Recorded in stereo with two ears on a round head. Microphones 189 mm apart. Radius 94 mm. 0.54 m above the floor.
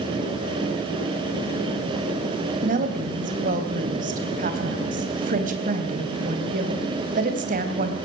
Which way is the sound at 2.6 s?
40° right (ahead or behind).